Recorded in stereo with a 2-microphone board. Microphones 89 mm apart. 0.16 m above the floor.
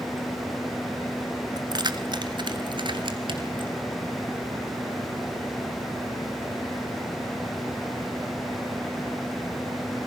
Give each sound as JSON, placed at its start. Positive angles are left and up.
{"t": 1.6, "sound": "keys jangling", "side_deg": -50, "distance_m": 1.4}